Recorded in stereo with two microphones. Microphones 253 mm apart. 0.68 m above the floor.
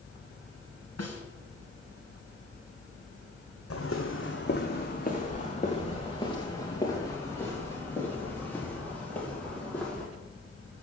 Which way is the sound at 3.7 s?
60° left (ahead or behind).